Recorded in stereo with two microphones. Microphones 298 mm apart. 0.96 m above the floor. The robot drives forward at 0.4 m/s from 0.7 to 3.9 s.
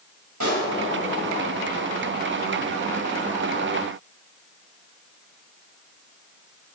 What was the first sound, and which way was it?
A pop, 70° right (ahead or behind).